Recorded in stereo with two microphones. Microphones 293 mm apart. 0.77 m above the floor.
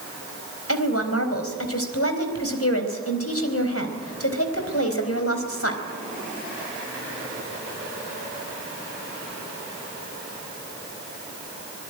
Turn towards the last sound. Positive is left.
turn(degrees=50)  # may be behind; listen again after turning